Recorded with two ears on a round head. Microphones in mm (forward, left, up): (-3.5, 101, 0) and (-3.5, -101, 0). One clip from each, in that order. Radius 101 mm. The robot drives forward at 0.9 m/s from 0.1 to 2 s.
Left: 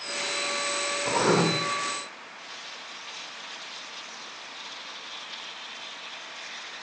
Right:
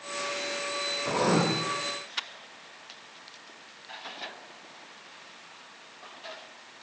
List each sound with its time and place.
1.1 s writing: 80° left, 3 m